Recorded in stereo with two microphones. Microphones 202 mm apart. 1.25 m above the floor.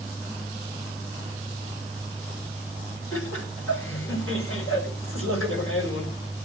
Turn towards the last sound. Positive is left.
turn(degrees=80)